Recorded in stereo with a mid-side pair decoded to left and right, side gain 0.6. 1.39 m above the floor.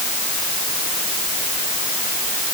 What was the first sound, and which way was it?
Only background noise.